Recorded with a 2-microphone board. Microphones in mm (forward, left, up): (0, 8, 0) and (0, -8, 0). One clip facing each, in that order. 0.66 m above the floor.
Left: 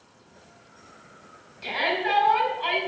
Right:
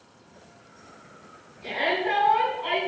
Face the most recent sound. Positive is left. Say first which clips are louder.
# even
turn(degrees=50)  # may be behind; listen again after turning